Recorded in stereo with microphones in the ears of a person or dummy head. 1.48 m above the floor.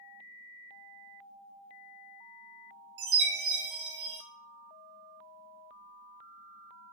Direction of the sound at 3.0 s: 65° right (ahead or behind).